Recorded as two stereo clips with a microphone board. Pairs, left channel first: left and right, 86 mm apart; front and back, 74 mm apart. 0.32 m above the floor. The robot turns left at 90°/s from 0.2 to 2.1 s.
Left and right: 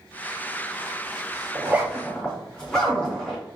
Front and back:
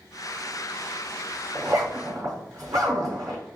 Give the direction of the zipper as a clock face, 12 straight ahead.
5 o'clock.